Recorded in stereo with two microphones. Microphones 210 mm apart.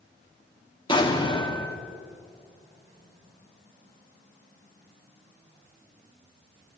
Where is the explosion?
25° left (ahead or behind), 1.6 m.